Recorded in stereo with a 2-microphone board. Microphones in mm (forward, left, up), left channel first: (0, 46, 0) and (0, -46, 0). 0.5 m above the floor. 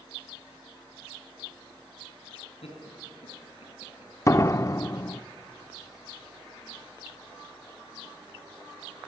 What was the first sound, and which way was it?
Laughter, 80° left.